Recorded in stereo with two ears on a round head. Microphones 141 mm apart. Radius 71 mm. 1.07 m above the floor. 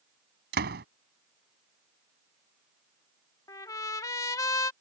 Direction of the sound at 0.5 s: 75° right (ahead or behind).